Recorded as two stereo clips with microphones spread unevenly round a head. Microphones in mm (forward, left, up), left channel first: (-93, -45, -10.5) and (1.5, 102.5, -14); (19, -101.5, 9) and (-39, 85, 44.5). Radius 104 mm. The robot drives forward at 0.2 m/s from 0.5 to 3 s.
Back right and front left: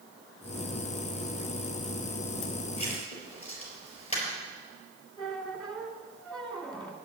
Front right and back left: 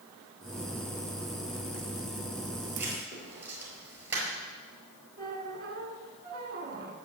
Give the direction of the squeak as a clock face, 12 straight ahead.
7 o'clock.